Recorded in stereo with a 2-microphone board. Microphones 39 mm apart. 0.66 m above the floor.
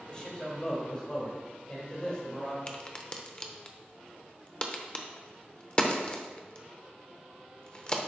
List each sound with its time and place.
0.1 s a man speaking: 30° left (ahead or behind), 2.5 m
2.7 s a crack: 30° left (ahead or behind), 0.6 m